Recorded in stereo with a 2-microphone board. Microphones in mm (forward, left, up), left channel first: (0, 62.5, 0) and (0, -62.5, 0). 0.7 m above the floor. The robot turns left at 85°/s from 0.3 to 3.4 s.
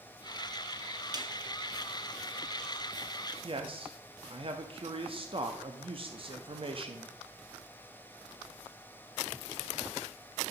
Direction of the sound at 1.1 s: 30° right (ahead or behind).